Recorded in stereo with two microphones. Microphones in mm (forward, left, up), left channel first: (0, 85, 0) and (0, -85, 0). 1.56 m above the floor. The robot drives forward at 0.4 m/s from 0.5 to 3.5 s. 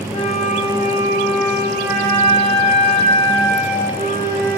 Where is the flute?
50° left (ahead or behind), 3.5 m; by 4.6 s 35° left (ahead or behind), 4.5 m.